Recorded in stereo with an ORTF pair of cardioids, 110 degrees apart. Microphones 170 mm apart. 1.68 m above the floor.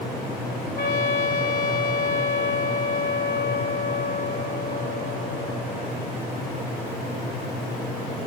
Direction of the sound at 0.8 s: 70° left.